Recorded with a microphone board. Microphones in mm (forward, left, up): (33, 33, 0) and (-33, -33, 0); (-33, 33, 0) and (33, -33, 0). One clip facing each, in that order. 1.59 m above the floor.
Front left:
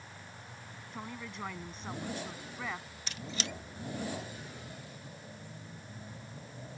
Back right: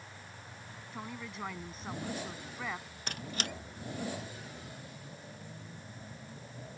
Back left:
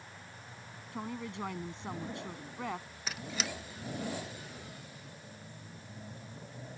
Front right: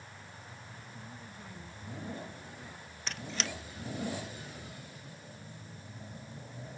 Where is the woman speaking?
140° left.